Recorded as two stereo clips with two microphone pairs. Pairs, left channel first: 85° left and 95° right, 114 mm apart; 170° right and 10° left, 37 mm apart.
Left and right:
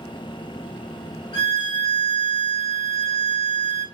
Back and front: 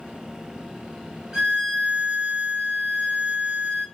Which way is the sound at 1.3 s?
70° left.